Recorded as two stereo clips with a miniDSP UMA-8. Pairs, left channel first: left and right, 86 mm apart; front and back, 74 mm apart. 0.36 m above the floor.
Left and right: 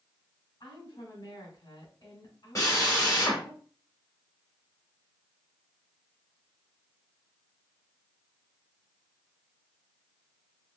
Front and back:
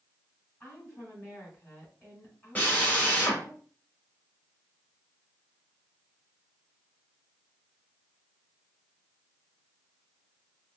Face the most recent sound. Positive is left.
turn(degrees=60)